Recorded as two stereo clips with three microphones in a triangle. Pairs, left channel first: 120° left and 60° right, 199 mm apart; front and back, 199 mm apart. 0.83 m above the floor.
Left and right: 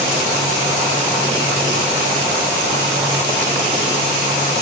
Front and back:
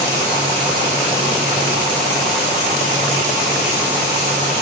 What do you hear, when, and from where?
Only background noise.